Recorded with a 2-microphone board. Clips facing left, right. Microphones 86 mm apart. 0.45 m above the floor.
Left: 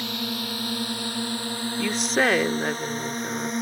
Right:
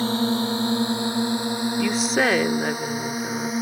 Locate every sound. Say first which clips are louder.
0.0 s a drone: right 9 dB; 30° right (ahead or behind); by 3.6 s 5° right (ahead or behind)
1.8 s a woman speaking: right 1 dB; centre (ahead or behind)